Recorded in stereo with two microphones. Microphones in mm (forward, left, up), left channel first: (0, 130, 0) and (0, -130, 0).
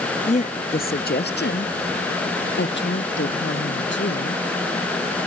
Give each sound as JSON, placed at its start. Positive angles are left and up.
{"t": 0.3, "sound": "a woman speaking", "side_deg": 25}